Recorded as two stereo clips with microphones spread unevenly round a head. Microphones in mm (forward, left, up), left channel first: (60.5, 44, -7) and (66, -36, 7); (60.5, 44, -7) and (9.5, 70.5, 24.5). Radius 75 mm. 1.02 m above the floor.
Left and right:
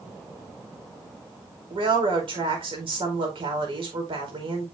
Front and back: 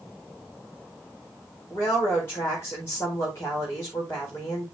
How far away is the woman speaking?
About 4.5 m.